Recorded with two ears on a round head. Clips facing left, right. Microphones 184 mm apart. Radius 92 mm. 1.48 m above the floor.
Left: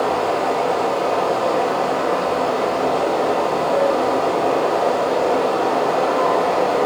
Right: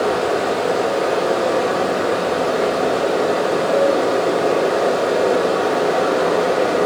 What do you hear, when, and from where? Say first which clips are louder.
0.0 s running water: right 1 dB; 20° right (ahead or behind), 1.1 m